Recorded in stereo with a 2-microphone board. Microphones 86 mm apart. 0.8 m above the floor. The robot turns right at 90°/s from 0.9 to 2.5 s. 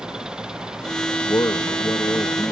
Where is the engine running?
10° right; by 2.5 s 135° left.